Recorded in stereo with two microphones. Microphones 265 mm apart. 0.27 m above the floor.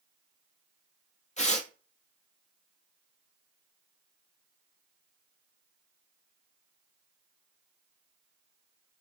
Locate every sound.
1.4 s tearing paper: 30° left (ahead or behind), 1.2 m